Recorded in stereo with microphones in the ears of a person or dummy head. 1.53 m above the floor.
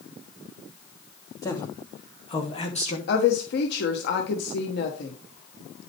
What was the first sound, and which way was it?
A man speaking, 20° left (ahead or behind).